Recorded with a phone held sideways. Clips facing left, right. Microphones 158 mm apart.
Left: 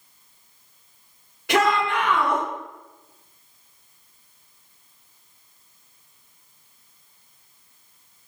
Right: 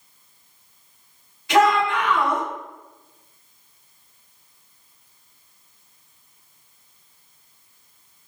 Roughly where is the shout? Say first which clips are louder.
Right 3 dB; left.